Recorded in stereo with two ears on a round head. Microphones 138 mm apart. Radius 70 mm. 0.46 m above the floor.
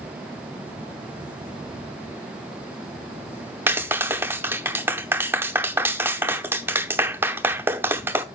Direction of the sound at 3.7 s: 15° right (ahead or behind).